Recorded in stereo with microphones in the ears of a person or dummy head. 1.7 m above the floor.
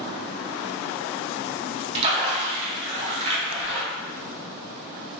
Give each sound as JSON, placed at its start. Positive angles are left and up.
{"t": 1.9, "sound": "a splash", "side_deg": -35, "distance_m": 0.6}